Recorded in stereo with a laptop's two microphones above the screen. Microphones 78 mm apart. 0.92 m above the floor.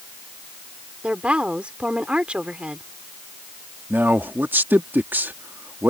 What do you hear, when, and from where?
1.0 s a woman speaking: 15° right (ahead or behind)
3.9 s a man speaking: 25° right (ahead or behind)